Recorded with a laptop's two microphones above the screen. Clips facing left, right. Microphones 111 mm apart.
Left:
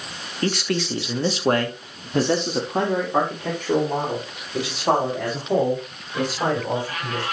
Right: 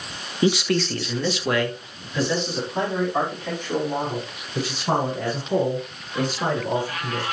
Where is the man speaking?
10° right (ahead or behind), 1.2 m; by 7.2 s 85° left, 6.5 m.